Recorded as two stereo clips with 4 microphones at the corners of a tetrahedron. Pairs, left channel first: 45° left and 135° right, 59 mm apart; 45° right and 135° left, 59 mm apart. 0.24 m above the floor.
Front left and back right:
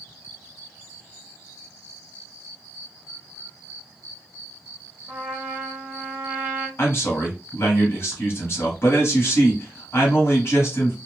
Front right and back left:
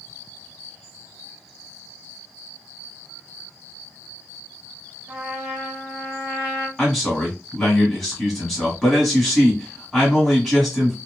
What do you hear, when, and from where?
5.1 s a trumpet: 175° right, 1.1 m
6.8 s a man speaking: 40° left, 1.3 m